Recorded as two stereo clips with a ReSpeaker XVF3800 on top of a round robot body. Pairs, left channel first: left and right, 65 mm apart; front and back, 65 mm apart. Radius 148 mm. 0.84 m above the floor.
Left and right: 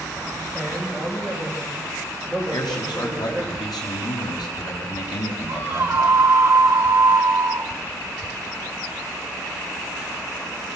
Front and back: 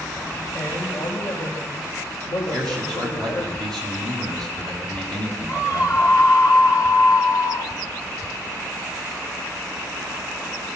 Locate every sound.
0.5 s a man speaking: straight ahead, 7 m; by 3.5 s 5° left, 4.5 m
2.5 s a man speaking: 85° left, 7 m
5.5 s a scream: 30° right, 1.6 m